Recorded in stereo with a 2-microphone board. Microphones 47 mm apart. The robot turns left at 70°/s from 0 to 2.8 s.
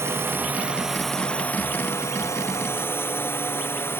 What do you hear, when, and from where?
0.0 s a drone: 110° right; by 4.0 s 55° left